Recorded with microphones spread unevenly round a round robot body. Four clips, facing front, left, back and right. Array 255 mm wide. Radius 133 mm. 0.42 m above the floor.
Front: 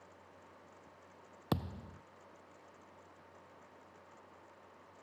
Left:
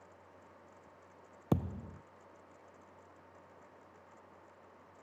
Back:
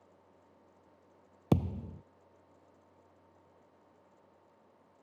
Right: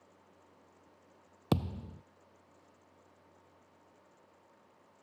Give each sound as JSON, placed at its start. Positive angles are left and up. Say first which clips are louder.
{"t": 1.5, "sound": "a thud", "louder": "right 1 dB, back 7 dB", "azimuth_deg": 175}